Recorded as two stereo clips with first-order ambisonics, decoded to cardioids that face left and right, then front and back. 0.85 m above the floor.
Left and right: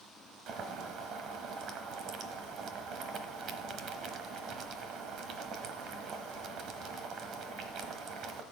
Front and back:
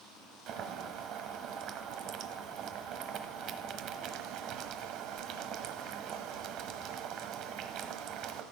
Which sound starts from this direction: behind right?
Boiling, at 0.5 s.